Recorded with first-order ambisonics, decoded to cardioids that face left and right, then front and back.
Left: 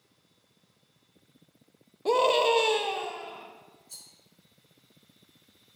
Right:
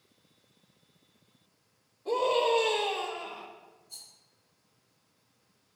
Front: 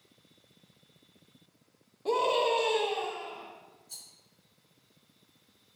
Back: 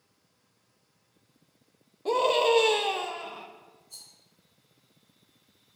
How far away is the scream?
About 0.8 m.